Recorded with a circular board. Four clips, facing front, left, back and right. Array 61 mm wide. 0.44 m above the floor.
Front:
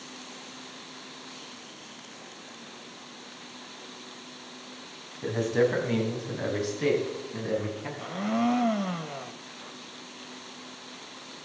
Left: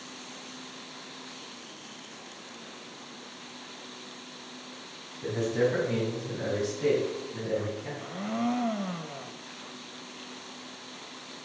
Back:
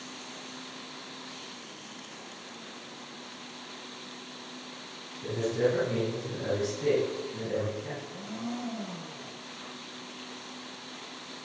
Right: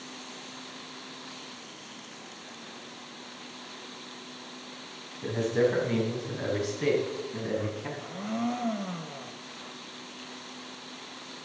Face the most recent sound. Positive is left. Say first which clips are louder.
# left 1 dB, front 11 dB
turn(degrees=10)